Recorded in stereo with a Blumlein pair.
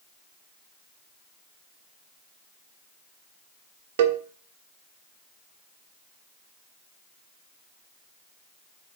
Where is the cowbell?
55° right, 0.6 m.